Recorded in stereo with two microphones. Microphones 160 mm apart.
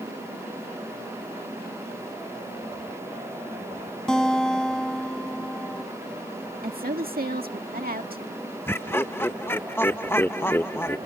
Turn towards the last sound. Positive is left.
turn(degrees=15)  # may be behind; listen again after turning